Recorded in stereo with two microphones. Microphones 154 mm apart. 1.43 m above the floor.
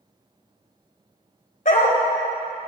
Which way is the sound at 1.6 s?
60° left (ahead or behind).